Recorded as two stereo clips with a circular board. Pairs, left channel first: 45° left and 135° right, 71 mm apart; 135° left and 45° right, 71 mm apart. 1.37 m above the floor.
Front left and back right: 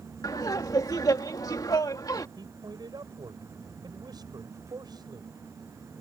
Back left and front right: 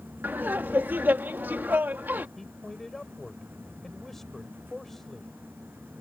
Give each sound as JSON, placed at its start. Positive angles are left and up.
{"t": 0.2, "sound": "laughter", "azimuth_deg": 20}
{"t": 2.4, "sound": "a man speaking", "azimuth_deg": -140}